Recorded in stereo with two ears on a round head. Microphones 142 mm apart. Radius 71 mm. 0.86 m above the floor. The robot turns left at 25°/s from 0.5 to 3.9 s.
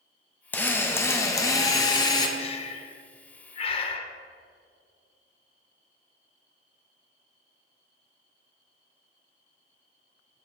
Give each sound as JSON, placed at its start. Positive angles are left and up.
{"t": 0.5, "sound": "a drill", "side_deg": 10, "distance_m": 0.8}
{"t": 2.4, "sound": "breathing", "side_deg": 35, "distance_m": 0.6}